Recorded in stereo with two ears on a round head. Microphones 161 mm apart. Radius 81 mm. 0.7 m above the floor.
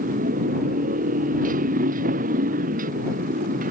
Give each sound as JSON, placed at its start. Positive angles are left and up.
{"t": 0.0, "sound": "a motorcycle", "side_deg": -50}